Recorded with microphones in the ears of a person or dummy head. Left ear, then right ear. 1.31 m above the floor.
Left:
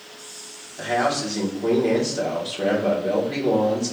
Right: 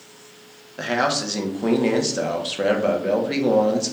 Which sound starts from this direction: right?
A man speaking, at 0.8 s.